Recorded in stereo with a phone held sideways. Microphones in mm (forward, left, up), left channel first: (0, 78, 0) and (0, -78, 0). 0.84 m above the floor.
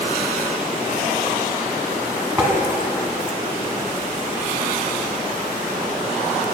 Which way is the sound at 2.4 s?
10° right (ahead or behind).